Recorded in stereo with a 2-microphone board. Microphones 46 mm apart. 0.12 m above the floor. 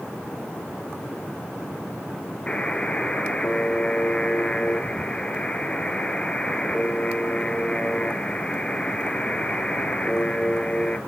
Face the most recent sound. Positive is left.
turn(degrees=20)  # may be behind; listen again after turning